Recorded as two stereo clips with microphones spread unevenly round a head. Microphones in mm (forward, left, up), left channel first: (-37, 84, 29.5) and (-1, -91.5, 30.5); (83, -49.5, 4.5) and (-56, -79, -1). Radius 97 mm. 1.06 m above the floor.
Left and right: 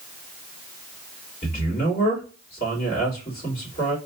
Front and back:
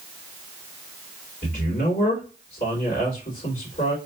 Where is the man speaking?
60° left, 3 m.